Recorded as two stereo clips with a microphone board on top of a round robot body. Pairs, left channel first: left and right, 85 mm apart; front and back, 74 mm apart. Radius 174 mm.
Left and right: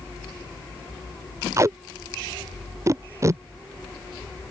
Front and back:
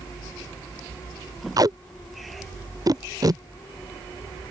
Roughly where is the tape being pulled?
Behind right.